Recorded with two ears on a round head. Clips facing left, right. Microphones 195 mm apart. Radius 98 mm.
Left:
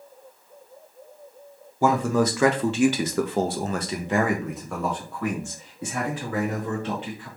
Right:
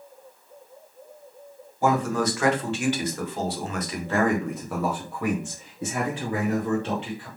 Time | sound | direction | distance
1.8 | a man speaking | 65° left (ahead or behind) | 1.3 m